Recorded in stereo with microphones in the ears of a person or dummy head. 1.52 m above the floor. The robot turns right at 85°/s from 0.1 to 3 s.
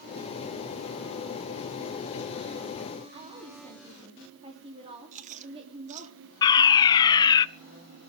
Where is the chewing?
45° right (ahead or behind), 1.8 m.